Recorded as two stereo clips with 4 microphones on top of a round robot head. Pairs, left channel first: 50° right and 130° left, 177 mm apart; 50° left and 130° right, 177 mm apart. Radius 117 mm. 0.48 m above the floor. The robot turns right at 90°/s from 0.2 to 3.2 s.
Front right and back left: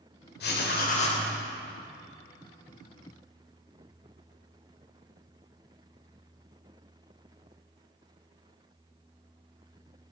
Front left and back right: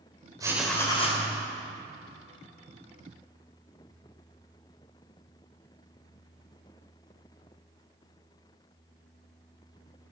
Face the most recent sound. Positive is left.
turn(degrees=-170)